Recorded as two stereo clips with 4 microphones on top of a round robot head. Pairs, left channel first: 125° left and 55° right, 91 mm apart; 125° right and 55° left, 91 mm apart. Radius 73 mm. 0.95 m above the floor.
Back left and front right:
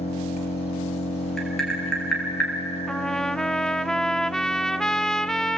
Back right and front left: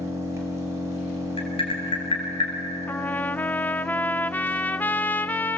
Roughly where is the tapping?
Behind right.